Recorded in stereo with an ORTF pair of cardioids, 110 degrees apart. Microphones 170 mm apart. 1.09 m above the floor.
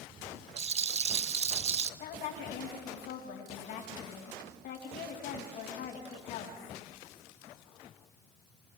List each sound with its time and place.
0.6 s a rattle: 40° right, 0.7 m
2.0 s a woman speaking: 55° left, 6.5 m